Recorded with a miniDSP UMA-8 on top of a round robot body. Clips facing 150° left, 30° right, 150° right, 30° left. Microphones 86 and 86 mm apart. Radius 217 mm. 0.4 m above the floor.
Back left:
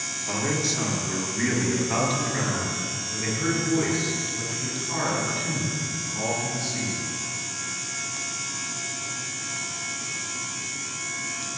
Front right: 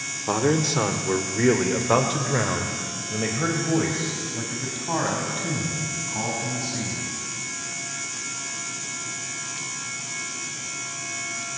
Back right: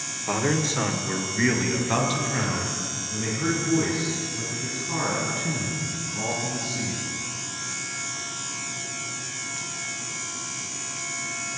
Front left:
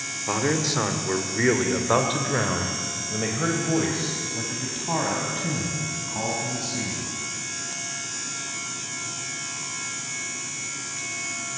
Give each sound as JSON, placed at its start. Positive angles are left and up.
{"t": 0.3, "sound": "a man speaking", "azimuth_deg": -55, "distance_m": 2.5}